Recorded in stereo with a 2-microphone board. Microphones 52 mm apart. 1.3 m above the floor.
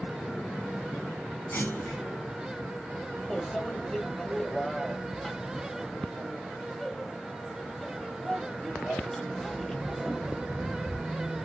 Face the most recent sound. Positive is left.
turn(degrees=10)  # may be behind; listen again after turning